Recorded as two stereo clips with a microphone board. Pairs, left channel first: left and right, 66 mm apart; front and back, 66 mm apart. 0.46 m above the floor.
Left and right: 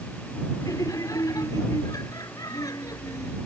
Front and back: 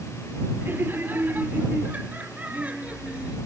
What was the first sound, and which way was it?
Laughter, 120° left.